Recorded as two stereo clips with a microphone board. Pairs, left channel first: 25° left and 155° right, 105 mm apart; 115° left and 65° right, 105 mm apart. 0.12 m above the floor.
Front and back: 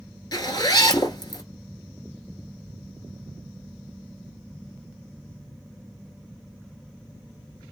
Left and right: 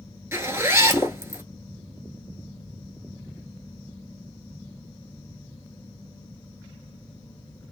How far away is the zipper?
About 0.9 m.